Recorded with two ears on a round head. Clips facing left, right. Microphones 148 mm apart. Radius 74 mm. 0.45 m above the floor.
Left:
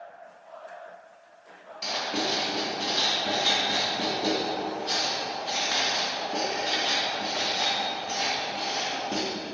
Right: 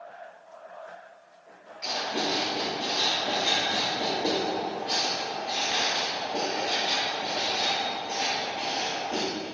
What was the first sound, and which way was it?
Writing, 50° left (ahead or behind).